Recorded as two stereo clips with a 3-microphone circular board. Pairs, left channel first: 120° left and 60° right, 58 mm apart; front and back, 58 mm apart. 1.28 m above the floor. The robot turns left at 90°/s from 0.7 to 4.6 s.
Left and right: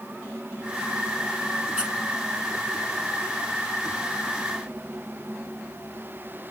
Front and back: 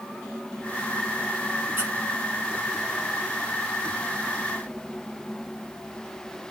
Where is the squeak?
130° right, 5 m; by 1.9 s 145° right, 5 m.